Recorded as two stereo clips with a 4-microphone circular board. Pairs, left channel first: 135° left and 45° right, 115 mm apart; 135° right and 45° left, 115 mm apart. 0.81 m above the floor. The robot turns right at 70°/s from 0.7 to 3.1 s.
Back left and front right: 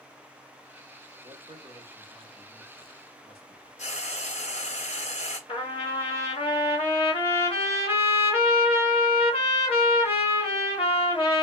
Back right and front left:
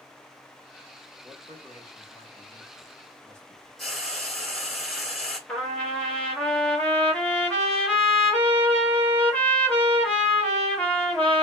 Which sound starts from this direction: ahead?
A man speaking, at 1.2 s.